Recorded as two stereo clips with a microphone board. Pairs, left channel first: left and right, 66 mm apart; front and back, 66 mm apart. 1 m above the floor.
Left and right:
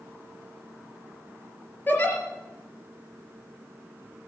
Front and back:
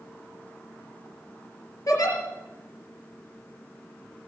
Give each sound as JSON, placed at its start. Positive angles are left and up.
{"t": 1.9, "sound": "a giggle", "azimuth_deg": 30, "distance_m": 4.0}